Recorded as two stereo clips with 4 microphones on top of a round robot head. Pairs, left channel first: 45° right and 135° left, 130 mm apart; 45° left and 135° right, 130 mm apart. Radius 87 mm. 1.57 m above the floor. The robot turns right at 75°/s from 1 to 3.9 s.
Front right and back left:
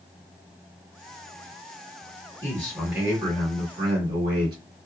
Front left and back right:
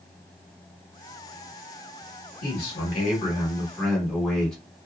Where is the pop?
I don't hear a pop.